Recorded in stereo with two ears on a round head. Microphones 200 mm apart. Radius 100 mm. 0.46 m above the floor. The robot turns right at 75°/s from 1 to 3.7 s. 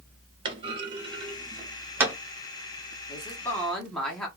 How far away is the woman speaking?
About 1.1 m.